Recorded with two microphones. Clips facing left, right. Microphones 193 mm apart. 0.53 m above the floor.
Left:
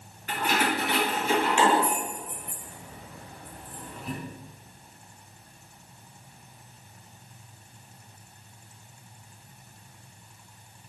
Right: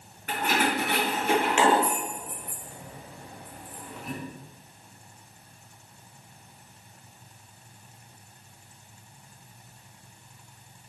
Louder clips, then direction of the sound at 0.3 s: Right 1 dB; 55° right (ahead or behind).